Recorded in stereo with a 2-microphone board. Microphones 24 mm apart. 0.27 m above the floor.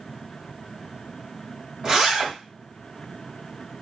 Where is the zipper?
35° right (ahead or behind), 1.3 m.